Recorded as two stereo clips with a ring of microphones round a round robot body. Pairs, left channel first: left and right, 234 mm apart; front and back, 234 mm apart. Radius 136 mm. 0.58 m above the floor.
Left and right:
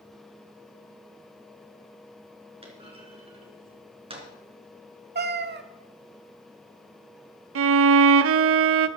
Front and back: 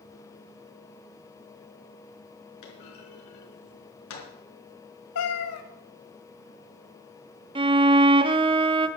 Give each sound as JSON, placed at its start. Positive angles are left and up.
{"t": 2.6, "sound": "a clunk", "azimuth_deg": -25, "distance_m": 3.5}
{"t": 5.2, "sound": "a cat meowing", "azimuth_deg": -40, "distance_m": 1.1}
{"t": 7.5, "sound": "a violin", "azimuth_deg": -110, "distance_m": 0.6}